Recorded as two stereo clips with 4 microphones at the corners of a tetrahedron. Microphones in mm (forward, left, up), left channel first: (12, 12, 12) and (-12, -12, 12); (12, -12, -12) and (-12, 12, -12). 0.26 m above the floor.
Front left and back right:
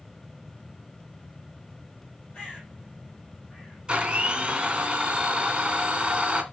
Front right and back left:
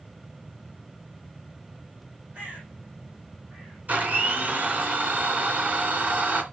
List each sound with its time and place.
2.3 s a bird: 100° left, 7.5 m
3.9 s a blender: 165° left, 2.5 m